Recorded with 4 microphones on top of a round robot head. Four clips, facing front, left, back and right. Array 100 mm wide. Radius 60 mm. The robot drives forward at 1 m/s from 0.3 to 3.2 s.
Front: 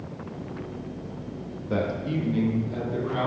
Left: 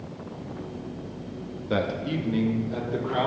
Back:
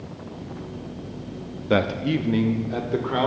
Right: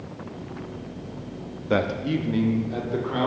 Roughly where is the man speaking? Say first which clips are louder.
Right 3 dB, back 5 dB; behind right.